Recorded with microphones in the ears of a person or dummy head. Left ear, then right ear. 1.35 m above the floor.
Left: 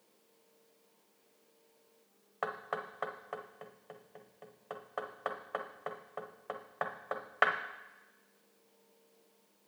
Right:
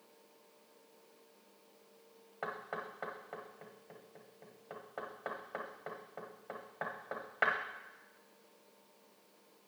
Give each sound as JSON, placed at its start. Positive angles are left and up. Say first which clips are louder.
{"t": 2.4, "sound": "knocking", "louder": "left 4 dB", "side_deg": 45, "distance_m": 0.9}